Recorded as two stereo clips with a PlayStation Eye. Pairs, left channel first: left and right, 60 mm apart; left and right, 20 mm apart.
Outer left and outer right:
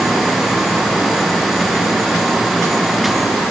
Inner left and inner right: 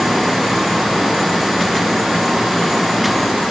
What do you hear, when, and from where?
Only background noise.